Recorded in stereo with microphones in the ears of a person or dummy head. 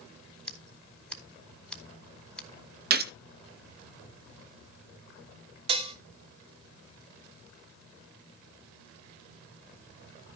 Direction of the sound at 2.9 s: 45° right (ahead or behind).